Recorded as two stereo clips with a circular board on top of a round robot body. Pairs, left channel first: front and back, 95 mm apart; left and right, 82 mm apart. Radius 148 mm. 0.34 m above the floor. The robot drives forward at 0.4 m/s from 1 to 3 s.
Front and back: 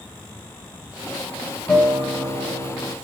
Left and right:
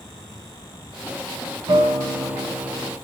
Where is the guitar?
75° right, 3 m; by 3.0 s 85° right, 3 m.